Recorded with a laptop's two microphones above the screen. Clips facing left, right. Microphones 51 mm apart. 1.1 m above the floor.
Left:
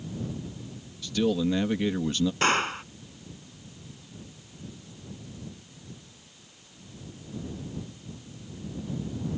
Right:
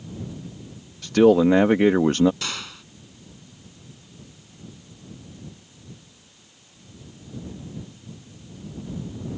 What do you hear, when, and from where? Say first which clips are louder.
1.0 s a man speaking: right 11 dB; 65° right (ahead or behind)
2.4 s a gunshot: left 9 dB; 40° left (ahead or behind)